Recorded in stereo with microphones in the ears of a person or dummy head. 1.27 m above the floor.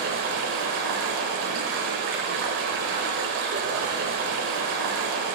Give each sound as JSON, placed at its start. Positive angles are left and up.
{"t": 0.0, "sound": "running water", "side_deg": -45, "distance_m": 1.3}